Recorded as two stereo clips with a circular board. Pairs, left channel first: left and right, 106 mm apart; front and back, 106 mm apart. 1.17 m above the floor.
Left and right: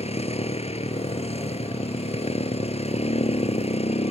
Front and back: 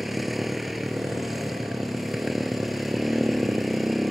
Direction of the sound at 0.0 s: 90° left.